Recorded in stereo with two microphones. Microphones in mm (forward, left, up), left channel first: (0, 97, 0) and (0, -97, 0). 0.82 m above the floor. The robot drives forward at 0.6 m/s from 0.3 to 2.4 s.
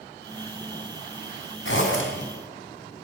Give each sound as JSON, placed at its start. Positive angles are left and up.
{"t": 1.6, "sound": "a zipper", "side_deg": 90, "distance_m": 3.5}